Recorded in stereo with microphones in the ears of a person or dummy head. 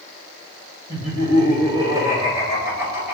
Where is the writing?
I don't hear writing.